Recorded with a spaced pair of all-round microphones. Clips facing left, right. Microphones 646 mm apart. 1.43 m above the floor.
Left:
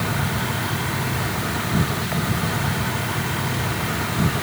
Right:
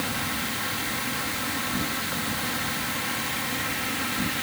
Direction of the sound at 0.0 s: 85° left.